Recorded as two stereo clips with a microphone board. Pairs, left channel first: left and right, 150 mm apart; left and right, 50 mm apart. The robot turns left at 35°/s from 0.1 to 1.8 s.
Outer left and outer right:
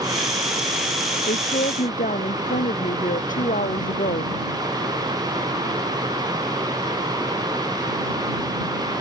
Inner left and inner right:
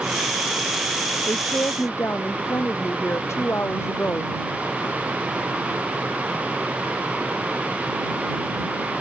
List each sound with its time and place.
1.3 s a woman speaking: 75° left (ahead or behind); by 4.3 s 65° left (ahead or behind)